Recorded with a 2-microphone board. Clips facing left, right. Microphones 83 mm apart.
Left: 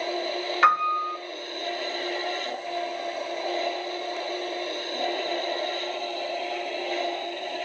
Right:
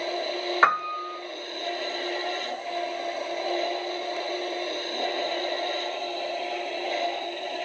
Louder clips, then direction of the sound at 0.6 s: Left 3 dB; 30° right (ahead or behind).